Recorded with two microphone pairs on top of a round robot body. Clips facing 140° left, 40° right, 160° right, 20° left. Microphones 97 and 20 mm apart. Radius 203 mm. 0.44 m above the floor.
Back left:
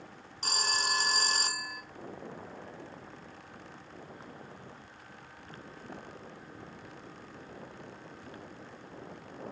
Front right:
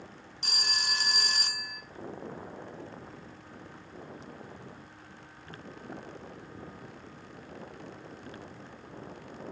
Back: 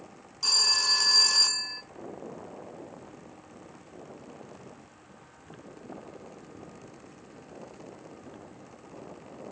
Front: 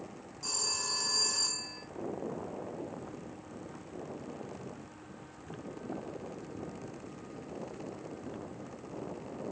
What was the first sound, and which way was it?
A phone ringing, 170° right.